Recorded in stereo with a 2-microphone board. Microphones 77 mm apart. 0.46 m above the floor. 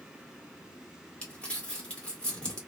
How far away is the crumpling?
About 1.6 m.